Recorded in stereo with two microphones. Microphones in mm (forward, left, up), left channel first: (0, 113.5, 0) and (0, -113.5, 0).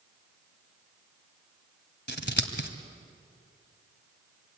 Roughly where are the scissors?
Left.